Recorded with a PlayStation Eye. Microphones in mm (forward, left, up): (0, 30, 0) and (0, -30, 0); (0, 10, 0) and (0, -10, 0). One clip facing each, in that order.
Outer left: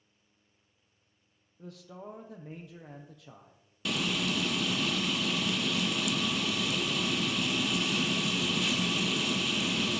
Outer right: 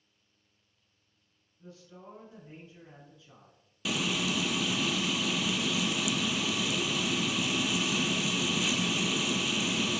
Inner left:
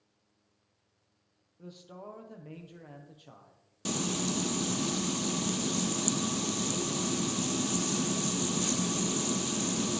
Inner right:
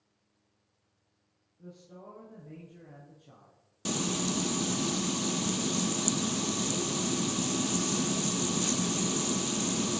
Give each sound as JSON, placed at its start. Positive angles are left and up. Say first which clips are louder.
{"t": 1.6, "sound": "a man speaking", "louder": "outer left 5 dB, inner left 2 dB", "side_deg": 70, "distance_m": 3.0}
{"t": 3.9, "sound": "frying", "louder": "even, inner right 1 dB", "side_deg": -5, "distance_m": 0.5}